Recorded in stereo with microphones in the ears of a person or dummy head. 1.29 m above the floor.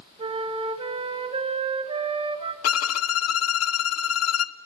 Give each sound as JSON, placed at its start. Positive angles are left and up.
{"t": 0.2, "sound": "a flute", "side_deg": -40, "distance_m": 1.1}
{"t": 2.6, "sound": "a violin", "side_deg": 80, "distance_m": 0.5}